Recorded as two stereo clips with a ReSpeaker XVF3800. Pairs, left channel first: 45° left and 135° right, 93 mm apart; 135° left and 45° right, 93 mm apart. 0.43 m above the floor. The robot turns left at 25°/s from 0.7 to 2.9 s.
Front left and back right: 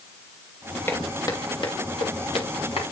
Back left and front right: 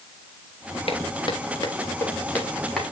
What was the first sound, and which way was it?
Footsteps, 110° left.